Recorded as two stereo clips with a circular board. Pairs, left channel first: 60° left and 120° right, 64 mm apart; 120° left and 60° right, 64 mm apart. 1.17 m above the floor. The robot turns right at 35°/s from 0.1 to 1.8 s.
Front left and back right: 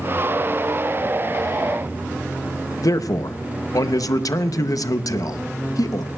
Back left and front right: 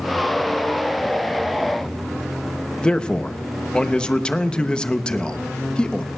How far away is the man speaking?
About 0.6 m.